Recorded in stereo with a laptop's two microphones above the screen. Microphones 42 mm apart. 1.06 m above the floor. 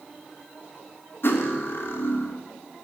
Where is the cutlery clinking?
60° left (ahead or behind), 0.5 m.